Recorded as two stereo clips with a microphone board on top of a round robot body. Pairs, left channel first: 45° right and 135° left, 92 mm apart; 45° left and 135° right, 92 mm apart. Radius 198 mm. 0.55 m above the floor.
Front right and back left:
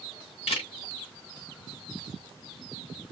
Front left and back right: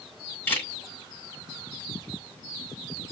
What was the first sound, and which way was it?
A camera shutter, 25° right.